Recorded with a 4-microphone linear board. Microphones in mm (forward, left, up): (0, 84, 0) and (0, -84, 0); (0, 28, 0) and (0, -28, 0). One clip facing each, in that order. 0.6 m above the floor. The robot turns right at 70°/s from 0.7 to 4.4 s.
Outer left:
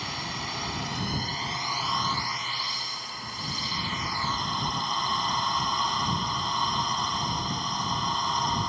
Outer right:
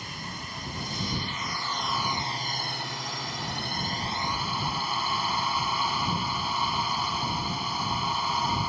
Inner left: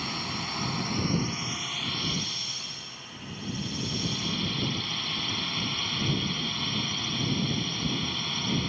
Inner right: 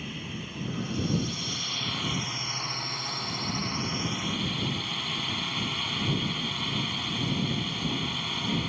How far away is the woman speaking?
No woman speaking in this recording.